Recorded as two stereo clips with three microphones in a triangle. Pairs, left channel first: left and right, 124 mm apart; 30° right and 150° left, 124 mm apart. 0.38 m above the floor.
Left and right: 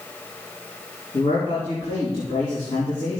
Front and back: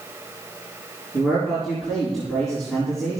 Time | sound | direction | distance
1.1 | a man speaking | 55° left | 4 m